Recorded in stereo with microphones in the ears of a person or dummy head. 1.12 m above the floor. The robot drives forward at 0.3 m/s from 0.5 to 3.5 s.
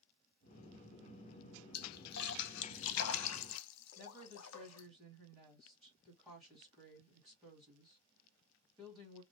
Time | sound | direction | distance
1.7 | a splash | 50° left (ahead or behind) | 0.7 m
4.0 | a woman speaking | 5° right (ahead or behind) | 1.7 m